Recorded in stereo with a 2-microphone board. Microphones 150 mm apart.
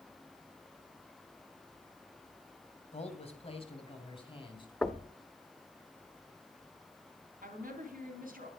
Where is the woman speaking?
70° right (ahead or behind), 3.5 m.